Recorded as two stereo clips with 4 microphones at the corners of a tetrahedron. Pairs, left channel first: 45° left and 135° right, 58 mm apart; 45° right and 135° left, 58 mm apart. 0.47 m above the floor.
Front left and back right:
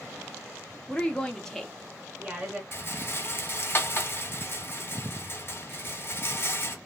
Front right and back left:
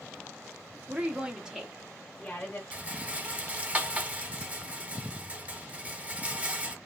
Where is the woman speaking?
90° left, 0.8 m; by 2.6 s 90° right, 0.8 m.